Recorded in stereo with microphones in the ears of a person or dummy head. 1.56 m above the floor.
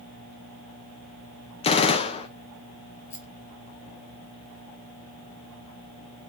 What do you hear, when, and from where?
1.6 s a gunshot: 35° left (ahead or behind), 1.0 m
3.1 s a rattle: 15° left (ahead or behind), 1.7 m